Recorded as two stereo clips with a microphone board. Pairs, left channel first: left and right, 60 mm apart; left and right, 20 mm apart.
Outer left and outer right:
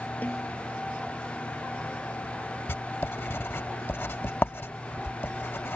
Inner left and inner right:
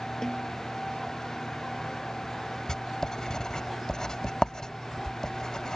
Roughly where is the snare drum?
Left.